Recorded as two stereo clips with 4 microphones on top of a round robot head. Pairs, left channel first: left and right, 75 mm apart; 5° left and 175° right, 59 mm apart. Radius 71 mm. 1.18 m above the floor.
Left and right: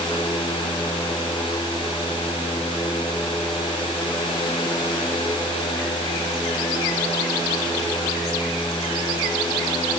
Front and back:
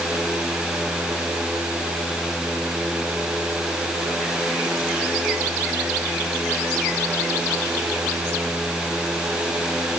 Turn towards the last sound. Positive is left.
No sound to turn to.